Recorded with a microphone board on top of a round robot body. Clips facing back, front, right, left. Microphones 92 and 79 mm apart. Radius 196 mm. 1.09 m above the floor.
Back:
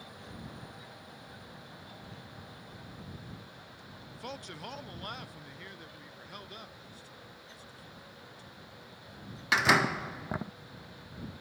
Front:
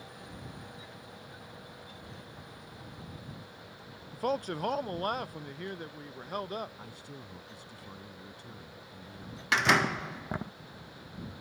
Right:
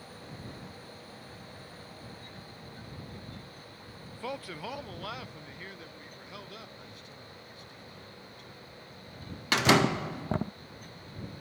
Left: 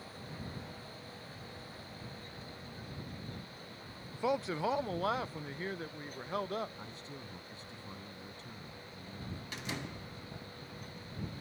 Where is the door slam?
90° right.